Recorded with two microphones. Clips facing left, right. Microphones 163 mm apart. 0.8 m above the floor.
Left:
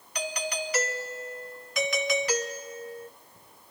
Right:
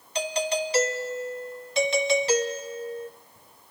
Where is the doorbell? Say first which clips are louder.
Right 6 dB; 30° right (ahead or behind), 1.2 m.